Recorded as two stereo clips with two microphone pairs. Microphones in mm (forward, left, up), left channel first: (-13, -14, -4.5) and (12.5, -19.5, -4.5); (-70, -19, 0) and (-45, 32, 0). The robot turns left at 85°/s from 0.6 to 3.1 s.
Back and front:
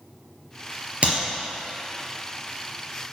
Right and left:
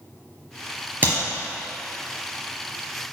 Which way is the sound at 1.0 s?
15° left.